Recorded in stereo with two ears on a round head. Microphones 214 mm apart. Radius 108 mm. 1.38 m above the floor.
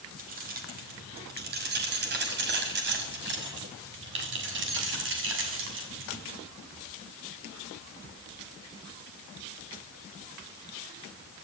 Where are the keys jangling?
40° right (ahead or behind), 5 m; by 6.2 s 55° right (ahead or behind), 7 m.